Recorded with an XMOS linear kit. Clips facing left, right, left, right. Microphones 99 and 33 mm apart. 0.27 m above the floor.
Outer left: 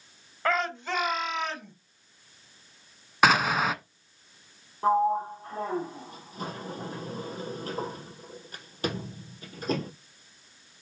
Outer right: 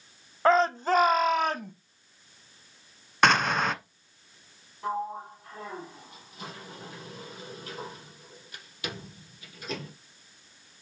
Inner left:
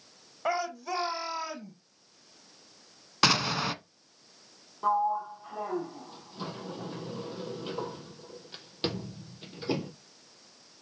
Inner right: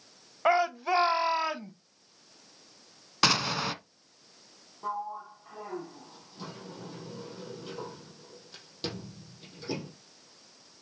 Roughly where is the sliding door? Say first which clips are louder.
Outer left 9 dB, inner left 8 dB; left.